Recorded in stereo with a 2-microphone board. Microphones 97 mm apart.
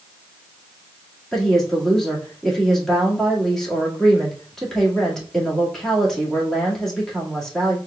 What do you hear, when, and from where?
1.3 s a woman speaking: 5° left (ahead or behind), 1.8 m